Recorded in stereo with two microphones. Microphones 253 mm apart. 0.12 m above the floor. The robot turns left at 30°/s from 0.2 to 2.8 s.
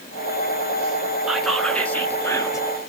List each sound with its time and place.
1.3 s whispering: centre (ahead or behind), 1.2 m; by 2.7 s 15° left (ahead or behind), 1.2 m